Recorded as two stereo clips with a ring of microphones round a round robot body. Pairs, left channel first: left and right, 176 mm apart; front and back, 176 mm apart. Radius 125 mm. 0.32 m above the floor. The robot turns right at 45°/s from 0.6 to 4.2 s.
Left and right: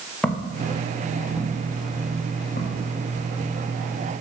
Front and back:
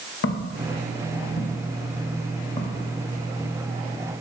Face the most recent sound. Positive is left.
turn(degrees=120)